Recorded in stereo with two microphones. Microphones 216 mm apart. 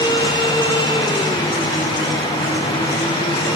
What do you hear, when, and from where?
Only background noise.